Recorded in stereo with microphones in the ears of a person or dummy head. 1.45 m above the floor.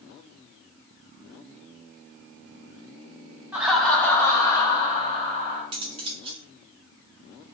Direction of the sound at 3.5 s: 5° right (ahead or behind).